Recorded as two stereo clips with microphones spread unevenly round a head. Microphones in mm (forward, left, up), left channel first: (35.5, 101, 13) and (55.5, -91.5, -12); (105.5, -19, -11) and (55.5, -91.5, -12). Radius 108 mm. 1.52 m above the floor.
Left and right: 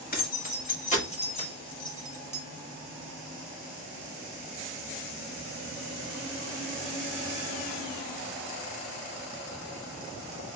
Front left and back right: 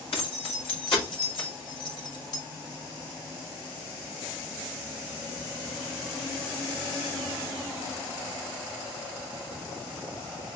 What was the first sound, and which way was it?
Keys jangling, 55° left.